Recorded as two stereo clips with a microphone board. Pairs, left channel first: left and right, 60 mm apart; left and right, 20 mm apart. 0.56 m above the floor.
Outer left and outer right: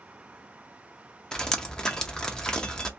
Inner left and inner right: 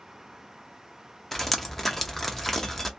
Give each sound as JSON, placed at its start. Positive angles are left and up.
{"t": 1.3, "sound": "dripping", "side_deg": 10, "distance_m": 0.6}